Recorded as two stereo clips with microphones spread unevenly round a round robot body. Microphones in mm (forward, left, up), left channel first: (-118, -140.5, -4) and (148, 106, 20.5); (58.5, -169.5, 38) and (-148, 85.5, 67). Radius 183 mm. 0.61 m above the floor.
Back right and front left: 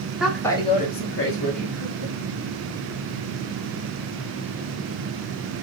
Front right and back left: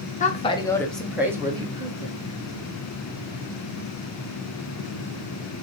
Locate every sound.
0.2 s a woman speaking: 50° right, 0.7 m; by 2.1 s 160° right, 1.1 m